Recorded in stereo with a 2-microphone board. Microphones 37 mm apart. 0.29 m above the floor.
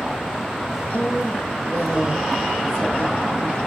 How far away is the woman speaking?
About 5 m.